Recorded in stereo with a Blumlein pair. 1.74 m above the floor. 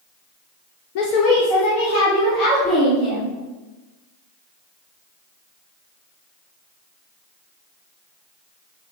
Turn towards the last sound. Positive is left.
turn(degrees=15)